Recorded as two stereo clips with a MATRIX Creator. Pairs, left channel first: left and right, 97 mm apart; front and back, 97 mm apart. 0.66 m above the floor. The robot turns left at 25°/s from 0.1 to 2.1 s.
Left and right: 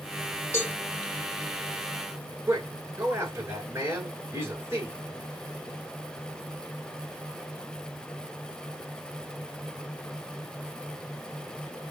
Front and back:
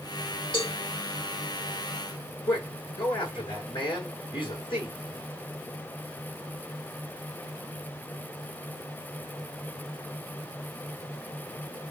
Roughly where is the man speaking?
Ahead right.